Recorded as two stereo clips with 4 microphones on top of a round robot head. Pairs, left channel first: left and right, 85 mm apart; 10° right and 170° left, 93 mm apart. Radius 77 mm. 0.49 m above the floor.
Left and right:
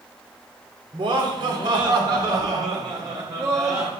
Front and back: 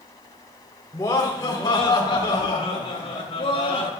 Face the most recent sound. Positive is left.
turn(degrees=-35)